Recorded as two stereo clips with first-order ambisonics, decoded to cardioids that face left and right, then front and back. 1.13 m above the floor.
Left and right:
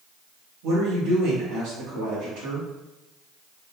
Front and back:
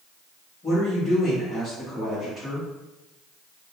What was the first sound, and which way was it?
A woman speaking, 75° right.